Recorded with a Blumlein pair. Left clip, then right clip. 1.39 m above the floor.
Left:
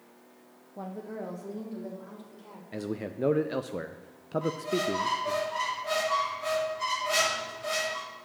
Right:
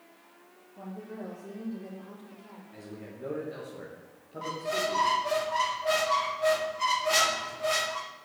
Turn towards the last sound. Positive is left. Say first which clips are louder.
# right 2 dB
turn(degrees=-15)